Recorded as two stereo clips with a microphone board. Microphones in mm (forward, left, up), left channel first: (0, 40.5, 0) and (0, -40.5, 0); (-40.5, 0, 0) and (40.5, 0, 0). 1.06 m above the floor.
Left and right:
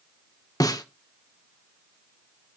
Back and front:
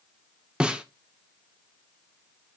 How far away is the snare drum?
About 1.0 m.